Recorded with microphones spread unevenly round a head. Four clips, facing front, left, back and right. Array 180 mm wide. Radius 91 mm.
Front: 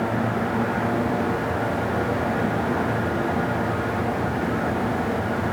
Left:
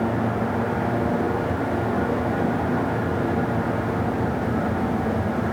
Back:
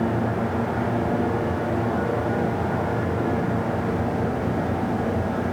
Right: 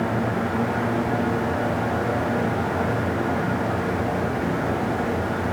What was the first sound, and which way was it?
Only background noise.